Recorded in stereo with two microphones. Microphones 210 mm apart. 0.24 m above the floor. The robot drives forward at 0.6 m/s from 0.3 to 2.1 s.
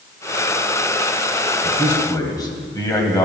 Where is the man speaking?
20° left (ahead or behind), 1.3 m.